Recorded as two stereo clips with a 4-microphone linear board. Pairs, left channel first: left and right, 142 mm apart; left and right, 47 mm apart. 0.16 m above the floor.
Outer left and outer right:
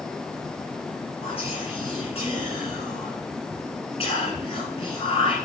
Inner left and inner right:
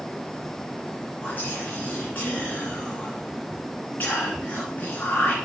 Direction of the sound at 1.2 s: 45° left (ahead or behind).